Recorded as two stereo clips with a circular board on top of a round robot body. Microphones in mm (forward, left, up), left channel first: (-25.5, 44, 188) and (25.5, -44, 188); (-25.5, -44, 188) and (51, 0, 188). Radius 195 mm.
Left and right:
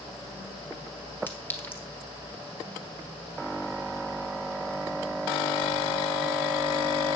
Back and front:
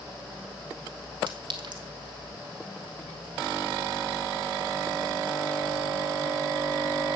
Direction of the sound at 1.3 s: 50° left.